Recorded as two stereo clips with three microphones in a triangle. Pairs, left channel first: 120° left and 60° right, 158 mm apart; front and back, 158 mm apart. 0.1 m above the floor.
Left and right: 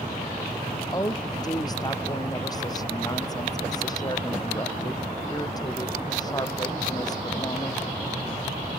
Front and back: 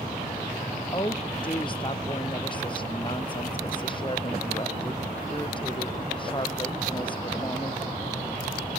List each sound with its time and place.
0.9 s a woman speaking: 55° left